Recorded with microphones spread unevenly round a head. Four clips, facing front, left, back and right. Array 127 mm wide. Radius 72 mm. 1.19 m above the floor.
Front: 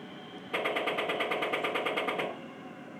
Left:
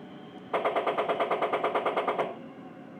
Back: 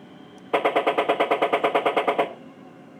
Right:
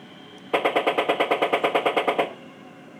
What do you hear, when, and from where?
0.5 s a gunshot: 120° right, 1.3 m